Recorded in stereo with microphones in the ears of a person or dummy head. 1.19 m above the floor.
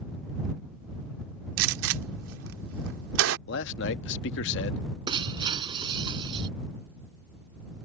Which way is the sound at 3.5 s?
80° left.